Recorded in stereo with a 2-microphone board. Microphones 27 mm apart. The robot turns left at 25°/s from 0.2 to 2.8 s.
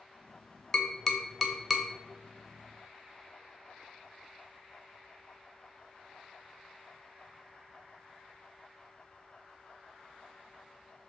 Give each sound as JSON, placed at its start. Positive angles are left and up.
{"t": 0.7, "sound": "tapping", "side_deg": 25, "distance_m": 1.0}